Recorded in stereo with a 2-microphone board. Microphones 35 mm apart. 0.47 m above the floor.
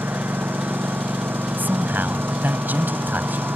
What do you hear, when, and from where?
0.0 s a lawn mower: 85° right
1.6 s a man speaking: 70° right (ahead or behind)